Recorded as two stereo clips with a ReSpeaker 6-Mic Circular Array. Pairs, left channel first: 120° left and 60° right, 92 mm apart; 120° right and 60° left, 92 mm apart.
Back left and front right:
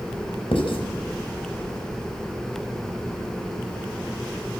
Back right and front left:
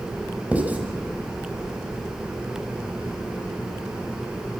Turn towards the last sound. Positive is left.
turn(degrees=135)